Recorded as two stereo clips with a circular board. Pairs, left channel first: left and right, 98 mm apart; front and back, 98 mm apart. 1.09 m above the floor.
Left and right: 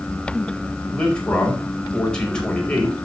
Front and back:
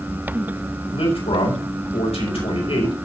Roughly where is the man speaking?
Ahead.